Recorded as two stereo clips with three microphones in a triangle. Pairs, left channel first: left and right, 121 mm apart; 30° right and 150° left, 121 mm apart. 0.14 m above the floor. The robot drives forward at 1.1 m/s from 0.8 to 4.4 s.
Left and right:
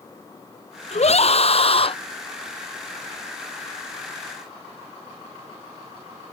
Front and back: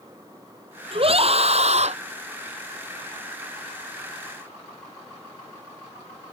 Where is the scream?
115° left; by 2.0 s 130° left.